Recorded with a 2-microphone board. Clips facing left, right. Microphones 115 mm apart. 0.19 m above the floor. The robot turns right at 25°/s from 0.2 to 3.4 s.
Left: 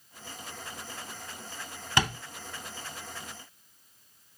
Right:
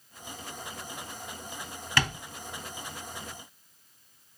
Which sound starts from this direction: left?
Tapping, at 2.0 s.